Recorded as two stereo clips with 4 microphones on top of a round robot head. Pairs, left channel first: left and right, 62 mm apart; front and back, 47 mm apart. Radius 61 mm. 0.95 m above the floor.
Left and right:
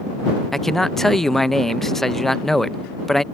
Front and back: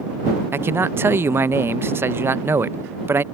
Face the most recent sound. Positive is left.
turn(degrees=175)